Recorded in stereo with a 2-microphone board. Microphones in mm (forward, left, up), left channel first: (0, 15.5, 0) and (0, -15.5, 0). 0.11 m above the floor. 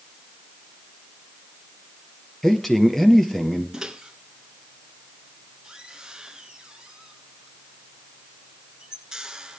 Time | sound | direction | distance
2.4 | a man speaking | 10° left (ahead or behind) | 2 m
3.7 | a microwave | 20° right (ahead or behind) | 1.3 m